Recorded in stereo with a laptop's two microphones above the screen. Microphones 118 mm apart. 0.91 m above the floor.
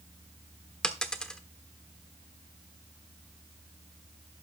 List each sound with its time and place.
0.8 s a dropped coin: 5° left (ahead or behind), 1.1 m